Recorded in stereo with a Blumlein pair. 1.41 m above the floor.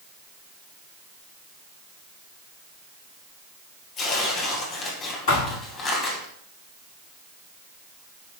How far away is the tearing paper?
About 2.0 m.